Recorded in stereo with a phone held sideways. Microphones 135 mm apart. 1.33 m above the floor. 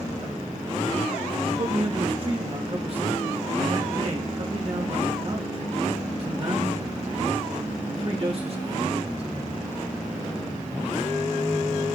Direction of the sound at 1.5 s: 45° right (ahead or behind).